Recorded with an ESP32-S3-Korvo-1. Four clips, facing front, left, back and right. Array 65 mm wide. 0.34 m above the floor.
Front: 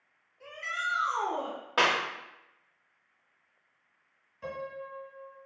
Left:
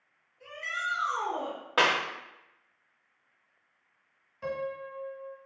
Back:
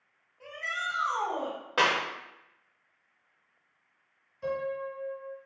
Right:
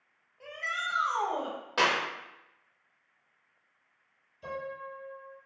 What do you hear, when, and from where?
0.4 s a shout: 115° right, 1.7 m
1.8 s a clap: 90° left, 0.7 m
4.4 s a piano: 80° left, 1.3 m